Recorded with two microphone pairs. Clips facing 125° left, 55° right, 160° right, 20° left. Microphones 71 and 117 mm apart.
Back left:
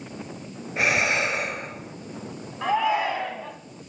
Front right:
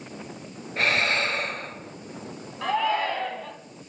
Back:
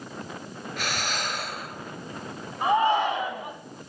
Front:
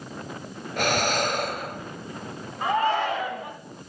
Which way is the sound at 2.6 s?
175° left.